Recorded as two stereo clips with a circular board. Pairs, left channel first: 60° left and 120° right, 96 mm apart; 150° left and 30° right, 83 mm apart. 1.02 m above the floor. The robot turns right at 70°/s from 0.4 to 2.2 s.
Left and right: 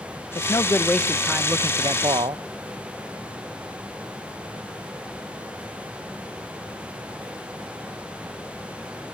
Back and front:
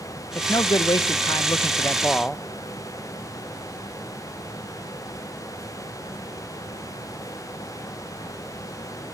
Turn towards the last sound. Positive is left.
turn(degrees=-135)